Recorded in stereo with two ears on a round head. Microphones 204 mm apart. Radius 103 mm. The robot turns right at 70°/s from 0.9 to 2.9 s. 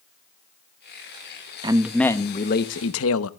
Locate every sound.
1.6 s a man speaking: 20° right, 0.9 m; by 3.3 s 70° left, 0.9 m